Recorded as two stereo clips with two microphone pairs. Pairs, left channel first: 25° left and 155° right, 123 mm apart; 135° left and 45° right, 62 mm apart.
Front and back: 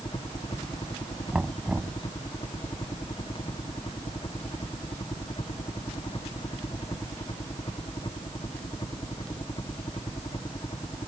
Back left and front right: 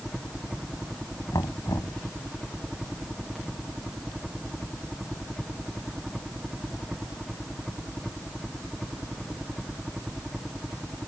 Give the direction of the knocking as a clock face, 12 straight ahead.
8 o'clock.